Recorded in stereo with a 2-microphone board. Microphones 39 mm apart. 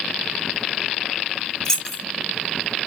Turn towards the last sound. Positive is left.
turn(degrees=15)  # may be behind; listen again after turning